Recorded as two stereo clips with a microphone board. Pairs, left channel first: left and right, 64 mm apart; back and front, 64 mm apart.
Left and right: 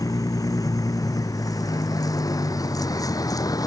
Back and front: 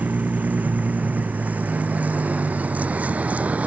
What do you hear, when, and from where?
0.0 s a vehicle: 65° left